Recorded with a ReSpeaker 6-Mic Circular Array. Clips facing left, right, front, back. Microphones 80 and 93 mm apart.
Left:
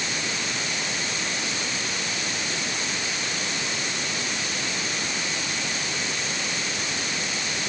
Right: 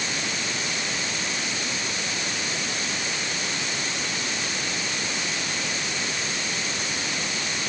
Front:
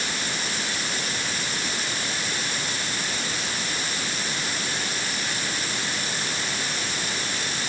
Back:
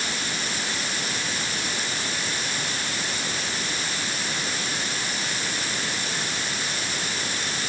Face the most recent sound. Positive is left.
No sound to turn to.